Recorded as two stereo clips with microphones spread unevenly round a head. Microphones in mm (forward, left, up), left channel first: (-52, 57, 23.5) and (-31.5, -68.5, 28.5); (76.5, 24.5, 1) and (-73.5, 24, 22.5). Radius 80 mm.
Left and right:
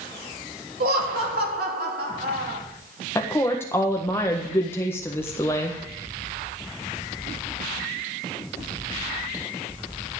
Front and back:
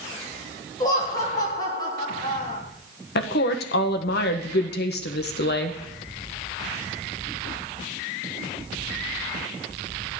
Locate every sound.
0.8 s laughter: 70° right, 3.5 m
3.1 s a woman speaking: 20° left, 1.5 m